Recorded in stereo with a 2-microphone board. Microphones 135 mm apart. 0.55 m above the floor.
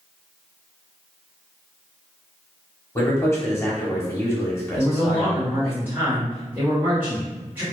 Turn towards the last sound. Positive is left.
turn(degrees=-15)  # may be behind; listen again after turning